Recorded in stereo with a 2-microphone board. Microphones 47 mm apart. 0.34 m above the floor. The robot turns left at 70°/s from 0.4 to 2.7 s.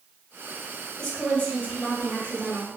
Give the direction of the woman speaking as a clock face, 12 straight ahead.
7 o'clock.